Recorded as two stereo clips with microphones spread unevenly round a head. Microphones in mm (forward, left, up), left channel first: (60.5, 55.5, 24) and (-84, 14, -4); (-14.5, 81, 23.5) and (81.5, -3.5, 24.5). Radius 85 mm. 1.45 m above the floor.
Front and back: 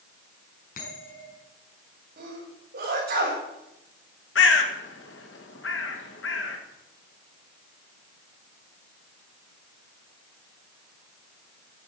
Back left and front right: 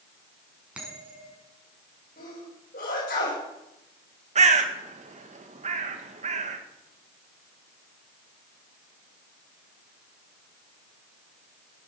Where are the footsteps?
I don't hear footsteps.